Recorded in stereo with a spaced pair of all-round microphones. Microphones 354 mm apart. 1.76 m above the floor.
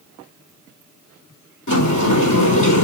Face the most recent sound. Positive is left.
turn(degrees=60)  # may be behind; listen again after turning